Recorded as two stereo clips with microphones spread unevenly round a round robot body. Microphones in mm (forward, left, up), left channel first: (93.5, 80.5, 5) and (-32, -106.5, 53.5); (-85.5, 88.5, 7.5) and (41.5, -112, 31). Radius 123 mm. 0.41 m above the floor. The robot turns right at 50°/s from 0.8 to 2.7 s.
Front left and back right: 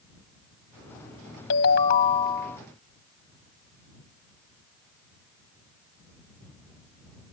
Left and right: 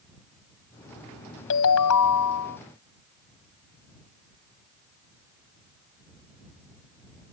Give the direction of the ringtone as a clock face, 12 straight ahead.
9 o'clock.